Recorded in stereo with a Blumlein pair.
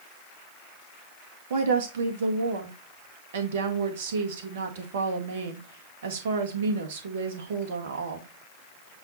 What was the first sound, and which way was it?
A woman speaking, 55° right.